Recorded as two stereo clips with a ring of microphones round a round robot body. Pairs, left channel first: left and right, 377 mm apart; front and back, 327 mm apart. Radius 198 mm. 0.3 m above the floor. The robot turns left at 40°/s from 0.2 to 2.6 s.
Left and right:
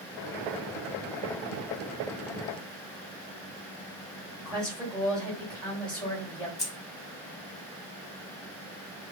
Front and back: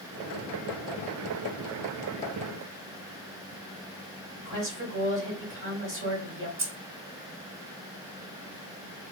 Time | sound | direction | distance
4.4 | a woman speaking | 175° left | 1.8 m
6.6 | keys jangling | 155° left | 1.1 m